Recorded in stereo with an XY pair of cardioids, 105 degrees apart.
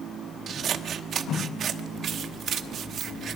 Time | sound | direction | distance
0.5 | scissors | 60° right | 1.0 m